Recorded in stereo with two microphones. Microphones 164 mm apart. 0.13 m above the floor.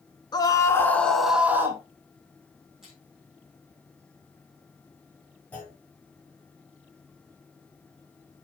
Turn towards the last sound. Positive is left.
turn(degrees=10)  # may be behind; listen again after turning